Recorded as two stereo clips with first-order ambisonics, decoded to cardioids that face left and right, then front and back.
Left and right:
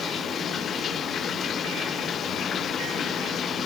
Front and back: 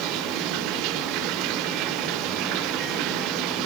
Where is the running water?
155° left.